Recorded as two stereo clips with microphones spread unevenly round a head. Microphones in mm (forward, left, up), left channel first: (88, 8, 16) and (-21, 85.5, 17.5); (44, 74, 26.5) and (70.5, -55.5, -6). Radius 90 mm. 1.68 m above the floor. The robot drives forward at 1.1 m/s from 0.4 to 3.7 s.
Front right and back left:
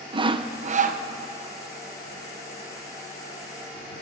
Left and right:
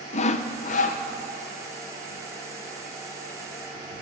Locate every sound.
0.1 s sawing: 95° left, 0.9 m; by 1.0 s 130° left, 1.2 m